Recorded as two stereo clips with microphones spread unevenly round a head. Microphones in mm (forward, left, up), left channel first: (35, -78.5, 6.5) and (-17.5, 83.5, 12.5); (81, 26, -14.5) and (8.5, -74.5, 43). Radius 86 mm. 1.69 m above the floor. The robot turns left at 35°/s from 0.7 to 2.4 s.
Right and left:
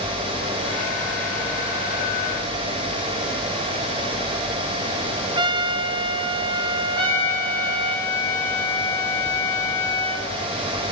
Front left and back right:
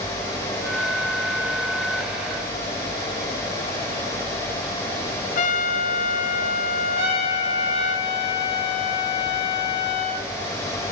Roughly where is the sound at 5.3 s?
Left.